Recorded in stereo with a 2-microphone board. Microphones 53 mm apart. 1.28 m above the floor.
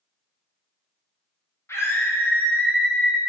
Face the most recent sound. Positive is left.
turn(degrees=5)  # may be behind; listen again after turning